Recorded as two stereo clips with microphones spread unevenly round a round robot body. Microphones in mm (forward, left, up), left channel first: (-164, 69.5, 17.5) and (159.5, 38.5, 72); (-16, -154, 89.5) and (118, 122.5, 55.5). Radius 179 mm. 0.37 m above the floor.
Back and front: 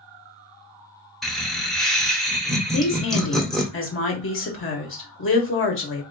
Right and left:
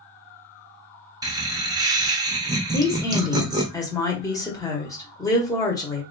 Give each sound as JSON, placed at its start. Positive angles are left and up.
{"t": 1.2, "sound": "laughter", "azimuth_deg": 110, "distance_m": 0.9}
{"t": 2.7, "sound": "a woman speaking", "azimuth_deg": 160, "distance_m": 1.4}